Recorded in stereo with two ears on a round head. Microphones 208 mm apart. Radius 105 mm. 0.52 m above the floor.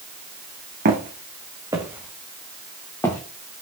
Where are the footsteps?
40° right (ahead or behind), 2 m; by 3.2 s 15° left (ahead or behind), 3 m.